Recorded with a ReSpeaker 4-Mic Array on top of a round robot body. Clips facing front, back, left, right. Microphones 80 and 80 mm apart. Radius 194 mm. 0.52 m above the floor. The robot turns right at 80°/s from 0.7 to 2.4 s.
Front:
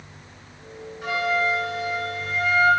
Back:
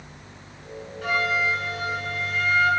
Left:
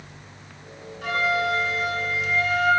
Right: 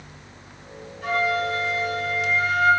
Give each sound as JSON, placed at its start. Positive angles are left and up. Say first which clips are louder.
{"t": 1.0, "sound": "a flute", "louder": "front 1 dB, even", "azimuth_deg": 80, "distance_m": 1.4}